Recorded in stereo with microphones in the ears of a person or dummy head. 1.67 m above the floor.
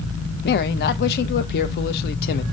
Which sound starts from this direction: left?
A man speaking, at 0.4 s.